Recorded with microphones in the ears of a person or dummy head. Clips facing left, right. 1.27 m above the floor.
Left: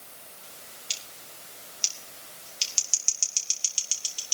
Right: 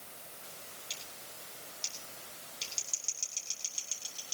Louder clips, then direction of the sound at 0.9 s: Left 1 dB; 40° left (ahead or behind).